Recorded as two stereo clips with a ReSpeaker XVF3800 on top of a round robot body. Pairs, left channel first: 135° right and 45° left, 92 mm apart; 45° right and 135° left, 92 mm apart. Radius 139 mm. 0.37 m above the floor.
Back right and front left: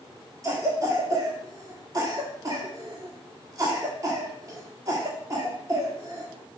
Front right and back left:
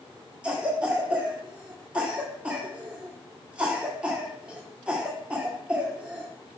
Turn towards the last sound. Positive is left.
turn(degrees=65)